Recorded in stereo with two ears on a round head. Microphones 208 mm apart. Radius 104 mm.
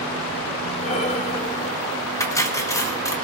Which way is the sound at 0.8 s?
30° left (ahead or behind).